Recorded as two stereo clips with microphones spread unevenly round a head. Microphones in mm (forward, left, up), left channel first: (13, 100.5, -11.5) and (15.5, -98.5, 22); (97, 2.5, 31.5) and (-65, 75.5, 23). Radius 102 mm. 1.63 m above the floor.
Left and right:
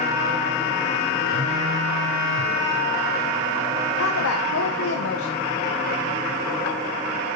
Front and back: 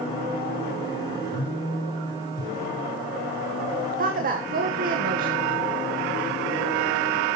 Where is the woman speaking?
115° left, 1.5 m.